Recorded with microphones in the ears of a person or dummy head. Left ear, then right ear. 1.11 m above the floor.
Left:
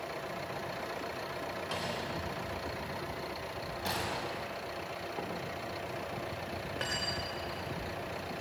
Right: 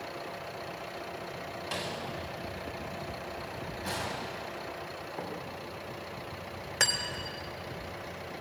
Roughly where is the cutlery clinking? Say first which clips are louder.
Right 6 dB; right.